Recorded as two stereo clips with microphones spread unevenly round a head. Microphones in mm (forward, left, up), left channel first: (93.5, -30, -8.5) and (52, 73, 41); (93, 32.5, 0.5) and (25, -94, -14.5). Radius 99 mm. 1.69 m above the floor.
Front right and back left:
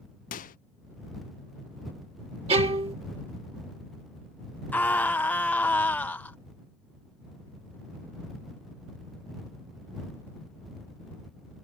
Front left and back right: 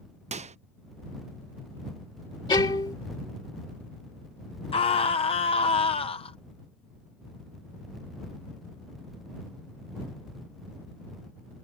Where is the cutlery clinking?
I don't hear cutlery clinking.